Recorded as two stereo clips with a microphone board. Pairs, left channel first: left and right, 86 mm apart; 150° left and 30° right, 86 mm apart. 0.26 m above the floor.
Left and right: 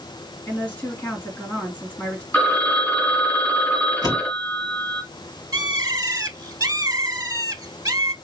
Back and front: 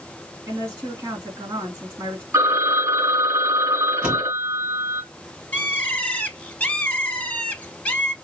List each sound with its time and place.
0.5 s a woman speaking: 25° left, 2.5 m
2.3 s a phone ringing: 25° left, 1.7 m
4.0 s a door slam: 50° left, 2.5 m
5.5 s a bird: 135° right, 0.6 m